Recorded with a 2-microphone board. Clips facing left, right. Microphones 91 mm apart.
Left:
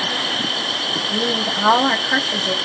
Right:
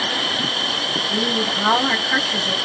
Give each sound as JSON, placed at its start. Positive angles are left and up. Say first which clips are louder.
{"t": 1.1, "sound": "a woman speaking", "louder": "left 1 dB", "side_deg": 20, "distance_m": 1.1}